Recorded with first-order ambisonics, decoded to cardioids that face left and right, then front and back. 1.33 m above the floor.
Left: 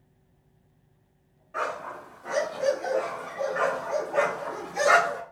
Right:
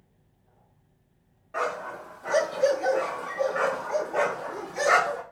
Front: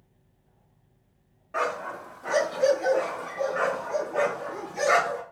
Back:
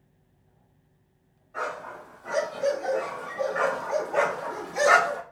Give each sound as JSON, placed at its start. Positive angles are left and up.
{"t": 1.5, "sound": "a dog barking", "azimuth_deg": -30, "distance_m": 1.3}